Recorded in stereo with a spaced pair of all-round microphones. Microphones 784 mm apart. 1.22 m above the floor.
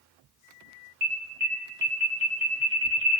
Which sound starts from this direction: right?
An alarm, at 1.0 s.